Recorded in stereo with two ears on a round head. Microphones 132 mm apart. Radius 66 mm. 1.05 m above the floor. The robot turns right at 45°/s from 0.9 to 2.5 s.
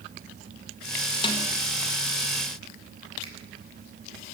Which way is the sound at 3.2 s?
40° right (ahead or behind).